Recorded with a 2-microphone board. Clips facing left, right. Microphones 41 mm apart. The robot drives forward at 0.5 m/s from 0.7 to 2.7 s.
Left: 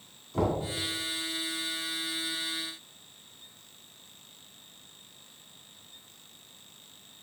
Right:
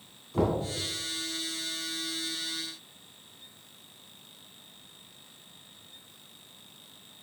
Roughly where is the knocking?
Centre.